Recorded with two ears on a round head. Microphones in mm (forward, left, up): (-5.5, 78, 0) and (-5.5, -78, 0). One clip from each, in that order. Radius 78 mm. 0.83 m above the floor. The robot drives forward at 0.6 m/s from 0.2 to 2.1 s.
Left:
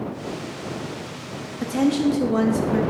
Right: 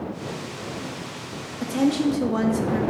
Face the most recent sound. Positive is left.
turn(degrees=0)  # may be behind; listen again after turning